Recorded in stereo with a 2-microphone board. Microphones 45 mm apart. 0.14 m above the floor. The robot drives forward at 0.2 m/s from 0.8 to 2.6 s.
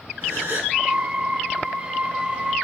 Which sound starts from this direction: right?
A gasp, at 0.2 s.